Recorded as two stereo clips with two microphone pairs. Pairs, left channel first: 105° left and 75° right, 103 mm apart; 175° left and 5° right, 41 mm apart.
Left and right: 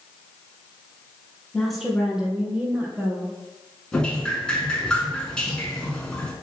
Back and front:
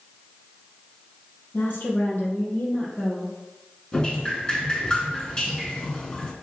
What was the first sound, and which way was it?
A woman speaking, 165° right.